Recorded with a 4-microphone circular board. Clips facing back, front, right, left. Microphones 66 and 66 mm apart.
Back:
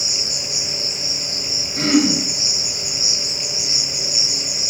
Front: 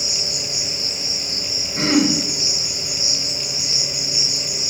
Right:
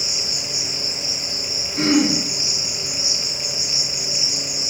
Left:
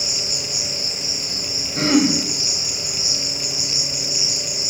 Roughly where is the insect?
Left.